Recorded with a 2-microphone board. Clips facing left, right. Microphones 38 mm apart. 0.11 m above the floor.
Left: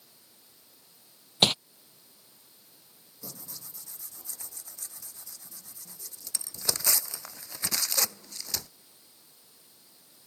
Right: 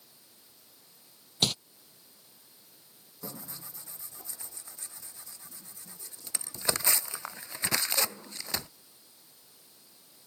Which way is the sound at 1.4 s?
45° left (ahead or behind).